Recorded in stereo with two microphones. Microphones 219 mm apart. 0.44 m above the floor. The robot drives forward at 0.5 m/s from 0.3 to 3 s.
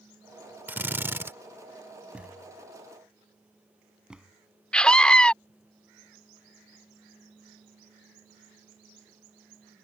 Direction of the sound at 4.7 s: 5° left (ahead or behind).